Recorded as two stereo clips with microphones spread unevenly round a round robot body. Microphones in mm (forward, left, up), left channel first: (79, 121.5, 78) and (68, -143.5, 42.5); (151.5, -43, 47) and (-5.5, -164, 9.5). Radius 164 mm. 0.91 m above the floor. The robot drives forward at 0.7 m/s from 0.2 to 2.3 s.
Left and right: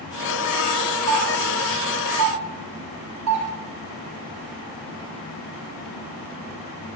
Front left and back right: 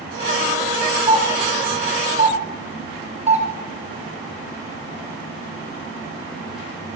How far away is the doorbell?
About 5.5 m.